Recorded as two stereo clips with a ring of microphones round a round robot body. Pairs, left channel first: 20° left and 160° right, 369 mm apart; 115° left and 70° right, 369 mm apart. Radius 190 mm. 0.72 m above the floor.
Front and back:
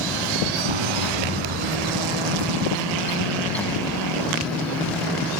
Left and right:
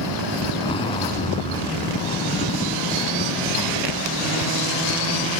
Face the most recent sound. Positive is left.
turn(degrees=-170)